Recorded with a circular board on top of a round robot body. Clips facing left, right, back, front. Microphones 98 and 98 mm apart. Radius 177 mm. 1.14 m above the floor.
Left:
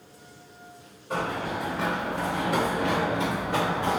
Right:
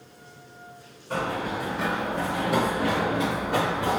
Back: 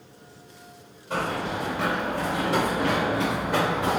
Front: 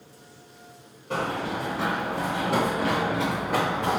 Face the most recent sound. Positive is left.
turn(degrees=-105)